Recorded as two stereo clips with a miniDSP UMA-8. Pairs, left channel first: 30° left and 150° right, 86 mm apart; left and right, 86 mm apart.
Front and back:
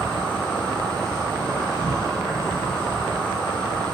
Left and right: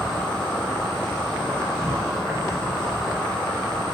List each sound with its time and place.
0.0 s an insect: 60° left, 1.3 m